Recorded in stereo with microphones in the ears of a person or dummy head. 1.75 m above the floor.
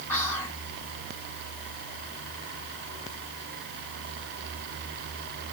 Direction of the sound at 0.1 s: 10° left (ahead or behind).